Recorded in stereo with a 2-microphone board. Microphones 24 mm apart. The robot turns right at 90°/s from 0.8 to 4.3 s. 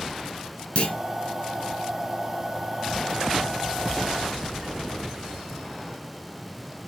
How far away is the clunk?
About 2.5 m.